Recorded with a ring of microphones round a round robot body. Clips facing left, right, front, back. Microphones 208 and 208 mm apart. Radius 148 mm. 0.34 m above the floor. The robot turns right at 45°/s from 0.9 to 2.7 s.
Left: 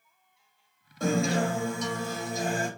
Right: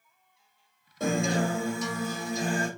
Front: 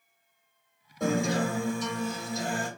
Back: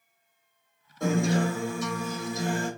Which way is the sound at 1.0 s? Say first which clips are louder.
Left 1 dB, back 2 dB; 50° right.